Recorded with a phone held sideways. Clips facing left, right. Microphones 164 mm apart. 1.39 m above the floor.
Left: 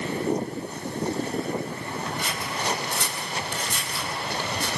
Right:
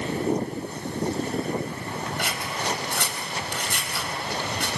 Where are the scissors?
70° right (ahead or behind), 4 m.